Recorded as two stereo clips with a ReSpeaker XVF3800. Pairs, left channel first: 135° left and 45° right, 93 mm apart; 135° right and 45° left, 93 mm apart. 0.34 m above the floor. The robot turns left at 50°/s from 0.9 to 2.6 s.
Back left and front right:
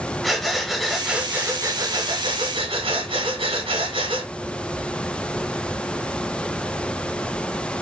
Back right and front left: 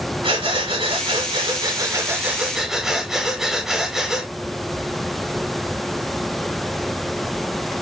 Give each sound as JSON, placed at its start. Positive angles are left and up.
{"t": 0.2, "sound": "breathing", "azimuth_deg": 45, "distance_m": 1.4}